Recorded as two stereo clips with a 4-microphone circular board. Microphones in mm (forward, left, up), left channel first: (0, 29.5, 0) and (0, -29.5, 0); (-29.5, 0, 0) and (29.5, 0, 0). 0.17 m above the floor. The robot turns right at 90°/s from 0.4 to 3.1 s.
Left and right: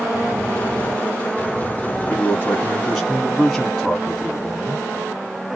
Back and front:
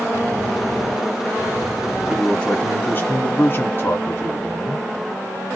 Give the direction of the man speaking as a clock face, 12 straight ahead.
9 o'clock.